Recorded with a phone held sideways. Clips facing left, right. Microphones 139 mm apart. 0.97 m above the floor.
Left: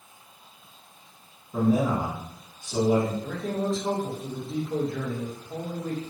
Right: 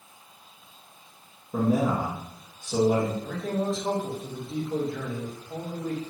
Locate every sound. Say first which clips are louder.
1.5 s a man speaking: left 1 dB; 55° right (ahead or behind), 0.8 m
3.2 s a man speaking: even; 5° right (ahead or behind), 0.8 m